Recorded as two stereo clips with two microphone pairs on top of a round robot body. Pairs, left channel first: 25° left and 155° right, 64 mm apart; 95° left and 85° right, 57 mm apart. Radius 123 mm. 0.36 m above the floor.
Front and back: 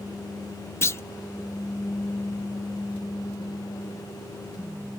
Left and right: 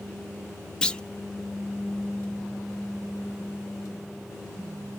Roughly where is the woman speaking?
No woman speaking in this recording.